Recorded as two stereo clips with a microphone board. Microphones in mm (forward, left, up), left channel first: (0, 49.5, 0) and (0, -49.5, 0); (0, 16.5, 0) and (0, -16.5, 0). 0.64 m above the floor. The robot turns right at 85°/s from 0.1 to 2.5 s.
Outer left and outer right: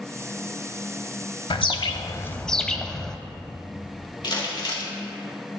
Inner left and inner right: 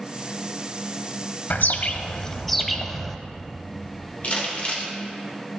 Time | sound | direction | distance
1.5 | a bird | 90° left | 0.7 m
4.2 | crumpling | 55° left (ahead or behind) | 2.5 m